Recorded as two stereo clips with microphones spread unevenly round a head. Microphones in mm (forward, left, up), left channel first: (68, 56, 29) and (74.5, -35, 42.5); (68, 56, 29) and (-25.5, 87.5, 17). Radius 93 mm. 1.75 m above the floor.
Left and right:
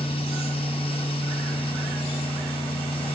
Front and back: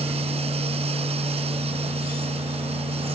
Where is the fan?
145° left.